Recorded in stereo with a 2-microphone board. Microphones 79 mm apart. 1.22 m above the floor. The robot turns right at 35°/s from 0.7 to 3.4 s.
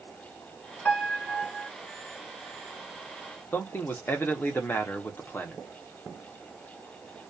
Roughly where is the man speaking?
Left.